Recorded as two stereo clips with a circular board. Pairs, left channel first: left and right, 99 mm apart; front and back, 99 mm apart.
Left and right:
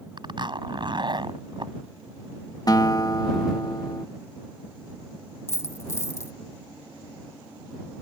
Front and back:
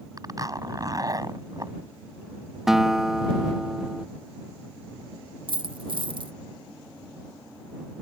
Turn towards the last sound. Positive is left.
turn(degrees=150)